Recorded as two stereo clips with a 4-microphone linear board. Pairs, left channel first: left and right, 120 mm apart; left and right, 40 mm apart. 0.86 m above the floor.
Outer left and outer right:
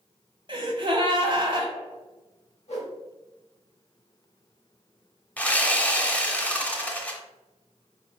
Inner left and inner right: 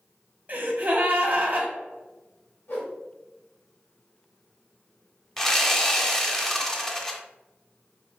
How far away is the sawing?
About 0.6 m.